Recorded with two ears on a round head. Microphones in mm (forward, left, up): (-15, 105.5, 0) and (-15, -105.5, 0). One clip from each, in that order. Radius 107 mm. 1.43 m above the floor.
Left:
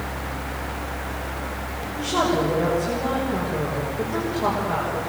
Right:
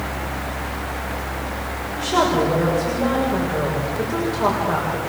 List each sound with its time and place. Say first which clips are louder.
2.0 s a woman speaking: right 3 dB; 25° right (ahead or behind), 6.5 m